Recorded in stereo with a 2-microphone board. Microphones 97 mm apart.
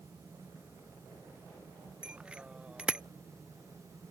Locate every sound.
2.0 s a bicycle bell: 10° right (ahead or behind)